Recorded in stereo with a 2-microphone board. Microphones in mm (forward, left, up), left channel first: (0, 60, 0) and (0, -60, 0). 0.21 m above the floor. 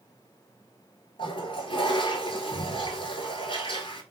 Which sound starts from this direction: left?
A toilet flushing, at 1.2 s.